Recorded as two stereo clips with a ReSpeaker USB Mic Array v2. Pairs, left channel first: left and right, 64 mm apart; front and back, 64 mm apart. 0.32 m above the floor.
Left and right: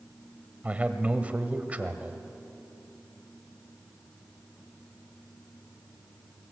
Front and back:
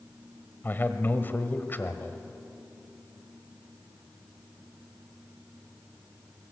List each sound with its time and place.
0.6 s a man speaking: 35° right, 1.5 m